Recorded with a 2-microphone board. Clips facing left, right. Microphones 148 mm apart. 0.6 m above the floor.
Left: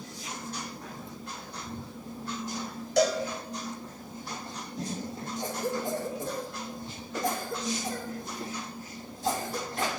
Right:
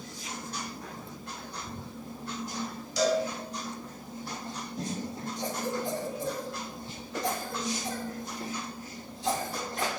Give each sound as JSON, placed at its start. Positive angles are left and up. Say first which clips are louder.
{"t": 3.0, "sound": "a cowbell", "louder": "left 1 dB", "side_deg": 65, "distance_m": 2.5}
{"t": 5.4, "sound": "a cough", "louder": "left 1 dB", "side_deg": 45, "distance_m": 2.0}